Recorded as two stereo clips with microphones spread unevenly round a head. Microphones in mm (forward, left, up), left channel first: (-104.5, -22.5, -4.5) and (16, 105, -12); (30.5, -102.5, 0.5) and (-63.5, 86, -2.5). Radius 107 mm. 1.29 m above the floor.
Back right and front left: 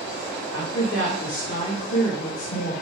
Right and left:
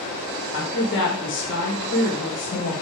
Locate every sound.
0.5 s a woman speaking: 95° right, 1.5 m